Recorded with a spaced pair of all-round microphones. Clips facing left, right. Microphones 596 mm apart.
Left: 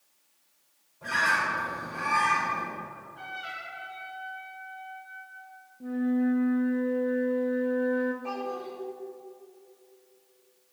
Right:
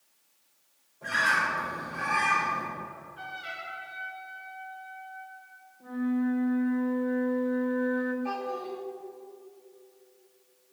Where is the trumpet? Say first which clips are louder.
Even; 70° left (ahead or behind), 3.5 m.